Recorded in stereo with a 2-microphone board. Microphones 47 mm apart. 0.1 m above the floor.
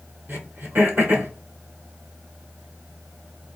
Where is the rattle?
I don't hear a rattle.